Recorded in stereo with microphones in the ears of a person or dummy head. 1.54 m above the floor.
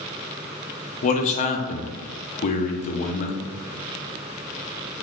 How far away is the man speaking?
About 0.5 m.